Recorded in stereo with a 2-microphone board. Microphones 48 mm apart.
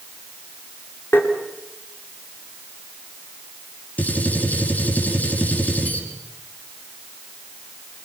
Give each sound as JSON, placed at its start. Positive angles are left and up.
{"t": 1.1, "sound": "tapping", "side_deg": 50, "distance_m": 4.5}
{"t": 4.0, "sound": "a gunshot", "side_deg": 35, "distance_m": 6.0}